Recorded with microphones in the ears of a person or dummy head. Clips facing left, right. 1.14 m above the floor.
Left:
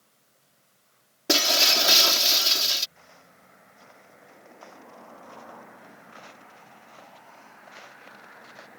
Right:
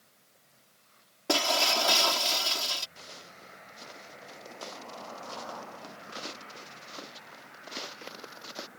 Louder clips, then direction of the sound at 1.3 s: Left 2 dB; 25° left (ahead or behind).